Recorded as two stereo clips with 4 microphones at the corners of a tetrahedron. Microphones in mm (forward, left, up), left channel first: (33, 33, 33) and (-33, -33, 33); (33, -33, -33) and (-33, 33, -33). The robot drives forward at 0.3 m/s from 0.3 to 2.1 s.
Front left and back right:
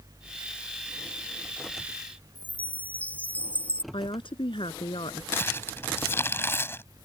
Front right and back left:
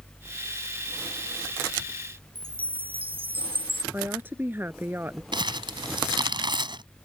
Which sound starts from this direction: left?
Crumpling, at 5.3 s.